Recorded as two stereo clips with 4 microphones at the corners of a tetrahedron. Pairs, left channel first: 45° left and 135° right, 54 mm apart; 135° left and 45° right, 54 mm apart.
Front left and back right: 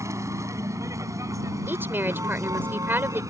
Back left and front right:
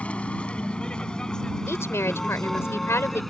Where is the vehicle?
155° right; by 3.3 s 135° right.